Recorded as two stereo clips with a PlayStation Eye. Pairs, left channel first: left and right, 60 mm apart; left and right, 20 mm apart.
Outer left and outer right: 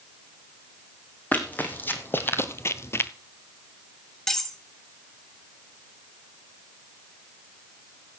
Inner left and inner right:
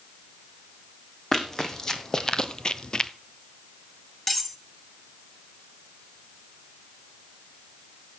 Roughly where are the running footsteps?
Left.